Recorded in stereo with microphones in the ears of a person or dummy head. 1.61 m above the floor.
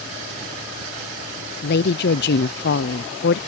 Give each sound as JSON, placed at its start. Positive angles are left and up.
{"t": 1.6, "sound": "a woman speaking", "side_deg": 65}